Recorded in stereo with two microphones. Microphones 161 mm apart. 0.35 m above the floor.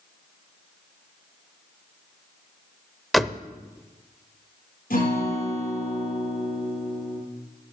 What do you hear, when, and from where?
3.1 s a door slam: centre (ahead or behind), 0.6 m
4.9 s a guitar: 70° left (ahead or behind), 7 m